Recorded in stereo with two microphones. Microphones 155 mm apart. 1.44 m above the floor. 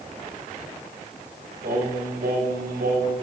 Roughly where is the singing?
Right.